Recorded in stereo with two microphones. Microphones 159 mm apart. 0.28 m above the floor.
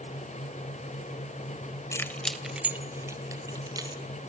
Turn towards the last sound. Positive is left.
turn(degrees=-25)  # may be behind; listen again after turning